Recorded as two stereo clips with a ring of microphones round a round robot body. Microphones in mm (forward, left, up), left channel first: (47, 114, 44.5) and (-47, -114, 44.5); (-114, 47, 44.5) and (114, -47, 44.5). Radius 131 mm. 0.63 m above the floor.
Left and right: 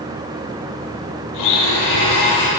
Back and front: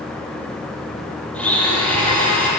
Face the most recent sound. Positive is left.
turn(degrees=70)